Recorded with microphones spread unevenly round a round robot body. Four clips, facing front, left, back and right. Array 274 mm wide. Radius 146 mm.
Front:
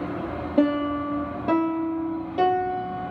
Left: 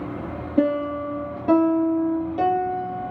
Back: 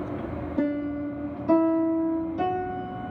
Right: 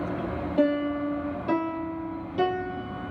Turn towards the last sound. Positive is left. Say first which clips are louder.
# left 3 dB, front 5 dB
turn(degrees=20)